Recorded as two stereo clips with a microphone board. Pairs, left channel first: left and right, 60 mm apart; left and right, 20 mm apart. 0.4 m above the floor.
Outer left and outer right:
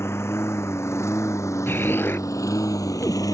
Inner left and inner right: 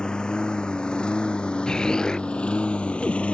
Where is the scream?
I don't hear a scream.